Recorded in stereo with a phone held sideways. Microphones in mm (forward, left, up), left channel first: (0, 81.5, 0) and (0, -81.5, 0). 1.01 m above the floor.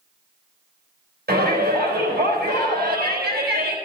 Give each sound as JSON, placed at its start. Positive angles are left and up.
{"t": 1.3, "sound": "a shout", "side_deg": -80, "distance_m": 3.5}